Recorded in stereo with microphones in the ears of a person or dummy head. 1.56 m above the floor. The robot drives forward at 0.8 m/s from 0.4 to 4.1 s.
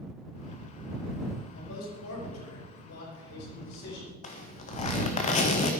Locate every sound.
1.6 s a man speaking: 75° left (ahead or behind), 6 m; by 4.1 s 80° left, 6 m
4.2 s a zipper: 40° left (ahead or behind), 1.7 m